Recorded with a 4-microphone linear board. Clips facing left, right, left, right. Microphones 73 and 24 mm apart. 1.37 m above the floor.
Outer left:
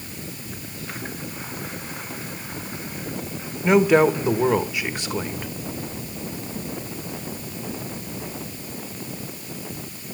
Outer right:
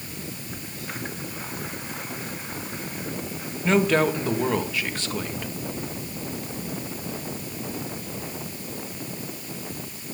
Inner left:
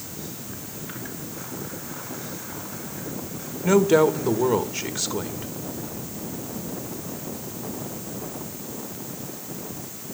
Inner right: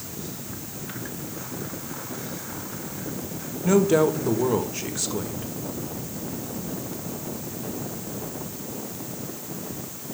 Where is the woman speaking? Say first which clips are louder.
Outer left 5 dB, inner left 2 dB; 15° left (ahead or behind), 1.4 m.